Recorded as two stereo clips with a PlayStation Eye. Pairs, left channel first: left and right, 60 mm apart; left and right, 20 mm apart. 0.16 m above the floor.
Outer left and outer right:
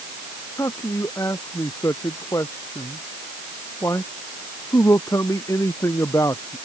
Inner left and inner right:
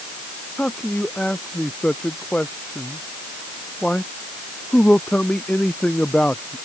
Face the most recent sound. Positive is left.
turn(degrees=65)  # may be behind; listen again after turning